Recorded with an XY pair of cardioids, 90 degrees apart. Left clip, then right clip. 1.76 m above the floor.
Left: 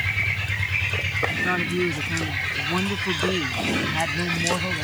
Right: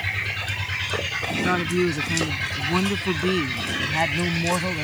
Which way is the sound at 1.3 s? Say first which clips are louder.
Right 1 dB; 30° right.